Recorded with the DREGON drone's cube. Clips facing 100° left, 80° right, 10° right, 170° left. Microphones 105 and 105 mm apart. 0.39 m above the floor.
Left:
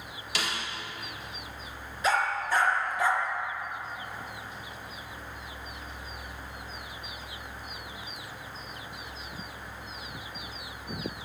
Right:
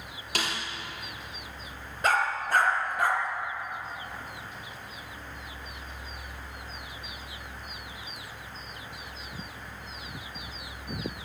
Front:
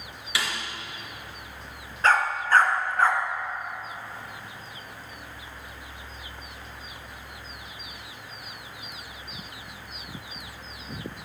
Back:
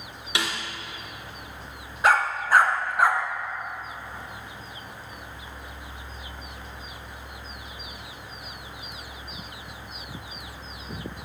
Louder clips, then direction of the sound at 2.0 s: Right 1 dB, back 1 dB; 110° right.